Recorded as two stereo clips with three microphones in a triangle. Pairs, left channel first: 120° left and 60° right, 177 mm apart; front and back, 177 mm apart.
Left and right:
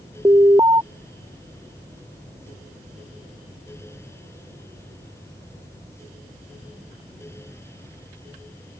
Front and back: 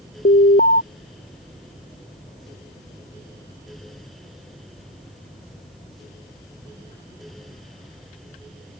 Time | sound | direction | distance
0.2 | an alarm | 5° left | ?